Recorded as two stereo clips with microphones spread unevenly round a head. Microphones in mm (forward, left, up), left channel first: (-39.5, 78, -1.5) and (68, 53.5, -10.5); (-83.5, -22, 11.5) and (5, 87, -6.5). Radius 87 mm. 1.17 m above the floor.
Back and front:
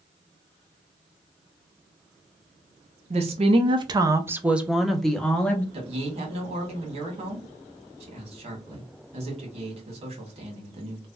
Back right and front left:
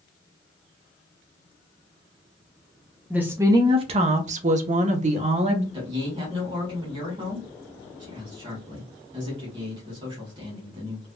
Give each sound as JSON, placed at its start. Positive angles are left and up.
{"t": 3.1, "sound": "a woman speaking", "azimuth_deg": -25, "distance_m": 0.7}
{"t": 5.7, "sound": "a man speaking", "azimuth_deg": 0, "distance_m": 1.4}